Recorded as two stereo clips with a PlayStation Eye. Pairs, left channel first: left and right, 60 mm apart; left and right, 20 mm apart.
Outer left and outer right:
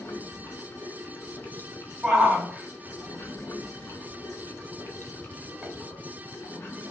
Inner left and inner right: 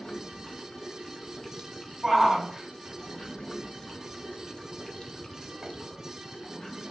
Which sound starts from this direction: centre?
A shout, at 2.0 s.